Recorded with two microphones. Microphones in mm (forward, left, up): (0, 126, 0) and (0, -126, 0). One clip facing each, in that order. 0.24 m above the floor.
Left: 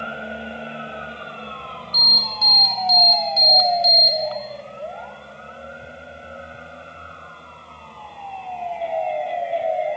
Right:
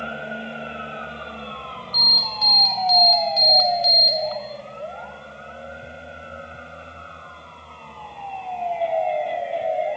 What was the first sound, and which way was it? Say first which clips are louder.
An alarm: left 1 dB; 25° left (ahead or behind).